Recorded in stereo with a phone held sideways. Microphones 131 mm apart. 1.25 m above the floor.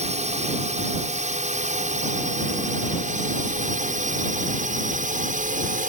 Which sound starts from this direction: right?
A drone, at 0.0 s.